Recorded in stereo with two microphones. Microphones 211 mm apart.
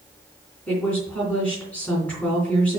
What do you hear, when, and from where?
0.7 s a woman speaking: 5° left (ahead or behind), 3.5 m